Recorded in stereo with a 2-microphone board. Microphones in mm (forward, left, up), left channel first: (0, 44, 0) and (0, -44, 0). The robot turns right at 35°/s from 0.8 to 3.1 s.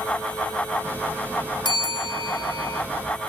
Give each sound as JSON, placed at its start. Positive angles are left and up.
{"t": 1.6, "sound": "a bell", "azimuth_deg": 80, "distance_m": 0.9}